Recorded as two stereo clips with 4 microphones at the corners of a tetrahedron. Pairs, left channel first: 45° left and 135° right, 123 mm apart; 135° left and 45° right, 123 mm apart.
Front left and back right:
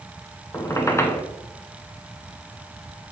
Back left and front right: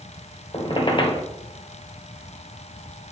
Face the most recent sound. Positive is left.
turn(degrees=105)